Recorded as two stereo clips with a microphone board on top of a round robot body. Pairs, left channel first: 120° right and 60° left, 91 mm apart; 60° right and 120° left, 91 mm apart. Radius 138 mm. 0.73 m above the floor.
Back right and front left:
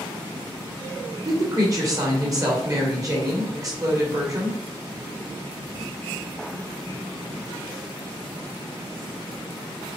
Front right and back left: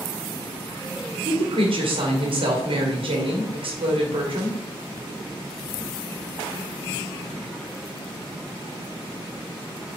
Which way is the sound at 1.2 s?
110° left.